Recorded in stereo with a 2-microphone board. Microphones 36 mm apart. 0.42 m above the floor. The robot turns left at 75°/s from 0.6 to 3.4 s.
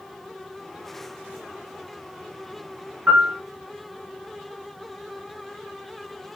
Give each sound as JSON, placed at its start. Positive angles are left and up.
{"t": 3.1, "sound": "a piano", "side_deg": -55, "distance_m": 1.8}